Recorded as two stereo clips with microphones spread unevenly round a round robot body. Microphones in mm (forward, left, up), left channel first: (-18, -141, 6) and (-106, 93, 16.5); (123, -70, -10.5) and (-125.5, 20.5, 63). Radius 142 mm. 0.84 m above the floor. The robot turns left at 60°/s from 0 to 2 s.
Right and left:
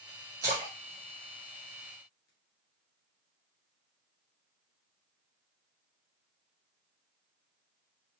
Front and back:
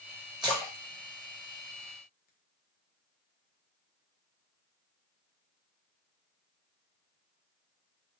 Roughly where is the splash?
Ahead left.